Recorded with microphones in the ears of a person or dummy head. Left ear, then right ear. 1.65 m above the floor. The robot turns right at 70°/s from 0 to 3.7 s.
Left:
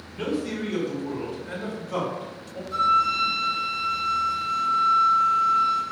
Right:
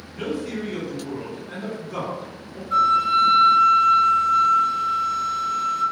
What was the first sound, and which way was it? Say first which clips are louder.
A man speaking: even; 10° right.